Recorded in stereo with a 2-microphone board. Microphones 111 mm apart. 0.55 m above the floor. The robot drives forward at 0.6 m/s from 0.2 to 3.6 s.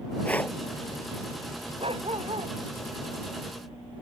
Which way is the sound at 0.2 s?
15° left (ahead or behind).